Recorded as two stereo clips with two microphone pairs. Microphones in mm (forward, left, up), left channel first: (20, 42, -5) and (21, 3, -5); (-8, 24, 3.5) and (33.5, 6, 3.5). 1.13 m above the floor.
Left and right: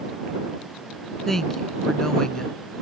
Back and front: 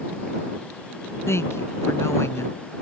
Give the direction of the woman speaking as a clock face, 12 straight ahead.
6 o'clock.